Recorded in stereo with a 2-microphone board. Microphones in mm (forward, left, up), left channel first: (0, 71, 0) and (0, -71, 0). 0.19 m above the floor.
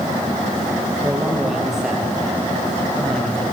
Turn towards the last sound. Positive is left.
turn(degrees=10)  # may be behind; listen again after turning